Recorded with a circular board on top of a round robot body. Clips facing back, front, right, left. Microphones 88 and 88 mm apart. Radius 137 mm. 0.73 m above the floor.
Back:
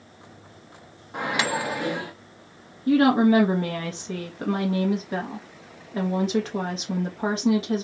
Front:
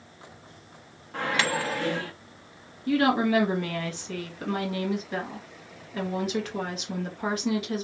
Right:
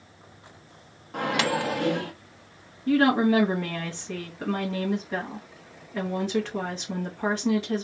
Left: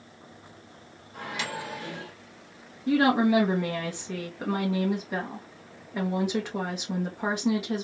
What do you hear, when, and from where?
1.1 s a microwave: 105° right, 0.5 m
2.9 s a woman speaking: 160° left, 1.1 m